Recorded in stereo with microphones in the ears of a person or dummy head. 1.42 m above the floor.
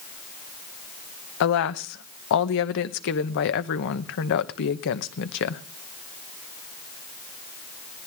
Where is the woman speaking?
60° left (ahead or behind), 1.0 m.